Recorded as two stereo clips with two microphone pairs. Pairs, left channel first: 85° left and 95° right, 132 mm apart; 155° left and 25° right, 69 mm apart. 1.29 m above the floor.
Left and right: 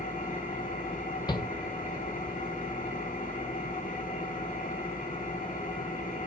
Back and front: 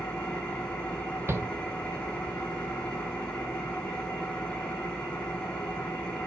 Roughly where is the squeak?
I don't hear a squeak.